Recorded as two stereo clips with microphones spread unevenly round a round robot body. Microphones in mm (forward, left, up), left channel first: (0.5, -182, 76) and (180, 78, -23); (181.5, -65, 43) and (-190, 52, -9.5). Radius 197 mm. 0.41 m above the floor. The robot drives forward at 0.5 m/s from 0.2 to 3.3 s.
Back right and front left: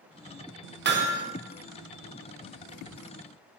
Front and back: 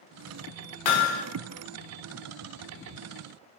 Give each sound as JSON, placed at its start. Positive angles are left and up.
{"t": 0.8, "sound": "hammering", "azimuth_deg": 0, "distance_m": 0.7}